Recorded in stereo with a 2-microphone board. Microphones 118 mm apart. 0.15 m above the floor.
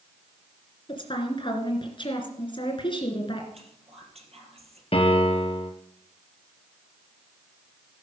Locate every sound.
0.9 s a woman speaking: 40° left (ahead or behind), 2 m
3.5 s whispering: 55° right (ahead or behind), 3.5 m
4.9 s a piano: 50° left (ahead or behind), 1.8 m